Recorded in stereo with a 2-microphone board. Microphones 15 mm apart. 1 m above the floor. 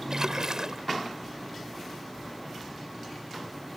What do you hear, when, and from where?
0.1 s a splash: 45° right (ahead or behind)